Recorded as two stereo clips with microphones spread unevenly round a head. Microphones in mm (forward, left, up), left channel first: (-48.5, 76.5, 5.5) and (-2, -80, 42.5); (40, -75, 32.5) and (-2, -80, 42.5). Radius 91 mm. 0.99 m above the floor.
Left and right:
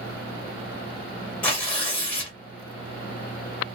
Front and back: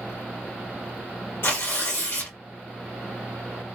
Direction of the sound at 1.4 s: 30° left.